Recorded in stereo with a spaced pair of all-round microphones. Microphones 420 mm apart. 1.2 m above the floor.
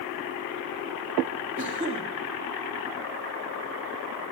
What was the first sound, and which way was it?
A cough, 30° right (ahead or behind).